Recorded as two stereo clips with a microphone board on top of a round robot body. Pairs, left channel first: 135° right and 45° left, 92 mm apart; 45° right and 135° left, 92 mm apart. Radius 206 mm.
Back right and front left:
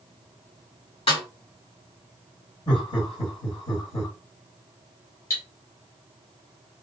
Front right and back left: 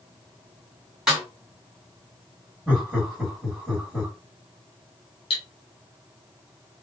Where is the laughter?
135° right, 1.8 m.